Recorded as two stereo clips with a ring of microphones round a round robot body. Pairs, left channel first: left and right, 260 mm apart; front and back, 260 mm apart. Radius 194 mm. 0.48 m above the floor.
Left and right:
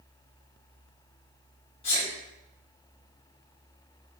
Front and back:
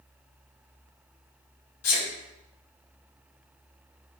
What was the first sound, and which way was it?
A sneeze, 15° left.